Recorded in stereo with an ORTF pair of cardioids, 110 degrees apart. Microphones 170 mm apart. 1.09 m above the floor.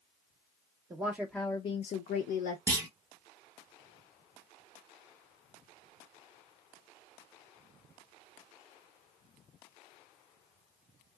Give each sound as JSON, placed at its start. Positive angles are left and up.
{"t": 0.9, "sound": "a woman speaking", "azimuth_deg": -20, "distance_m": 0.6}
{"t": 2.7, "sound": "a clunk", "azimuth_deg": -20, "distance_m": 0.9}